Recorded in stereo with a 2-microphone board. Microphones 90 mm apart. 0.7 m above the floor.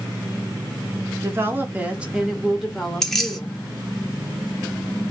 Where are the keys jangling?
5° left (ahead or behind), 0.8 m.